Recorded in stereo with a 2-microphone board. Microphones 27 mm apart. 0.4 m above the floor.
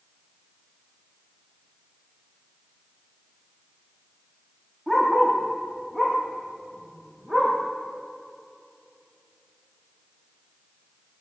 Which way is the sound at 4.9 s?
5° right (ahead or behind).